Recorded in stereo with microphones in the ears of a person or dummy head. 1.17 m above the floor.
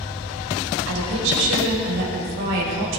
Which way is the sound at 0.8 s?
70° right (ahead or behind).